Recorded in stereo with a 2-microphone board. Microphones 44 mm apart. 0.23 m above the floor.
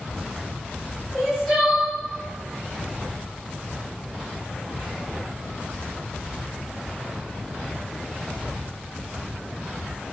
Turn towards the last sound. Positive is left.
turn(degrees=0)  # may be behind; listen again after turning